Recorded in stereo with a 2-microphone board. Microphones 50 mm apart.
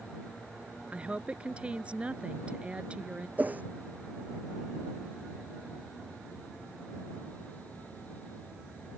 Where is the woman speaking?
25° right (ahead or behind).